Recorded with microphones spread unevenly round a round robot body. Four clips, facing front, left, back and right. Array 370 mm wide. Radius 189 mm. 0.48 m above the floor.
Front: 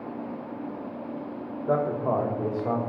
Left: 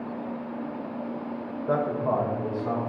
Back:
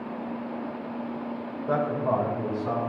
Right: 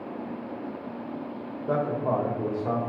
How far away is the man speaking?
About 1.2 m.